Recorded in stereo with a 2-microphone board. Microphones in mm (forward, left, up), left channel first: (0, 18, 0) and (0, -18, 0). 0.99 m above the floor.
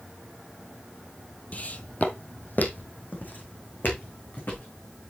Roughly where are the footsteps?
Left.